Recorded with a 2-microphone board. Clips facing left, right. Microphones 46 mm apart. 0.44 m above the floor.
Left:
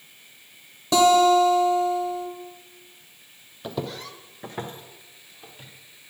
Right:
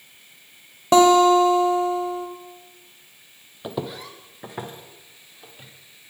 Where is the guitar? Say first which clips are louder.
Right 3 dB; 40° right (ahead or behind), 1.1 m.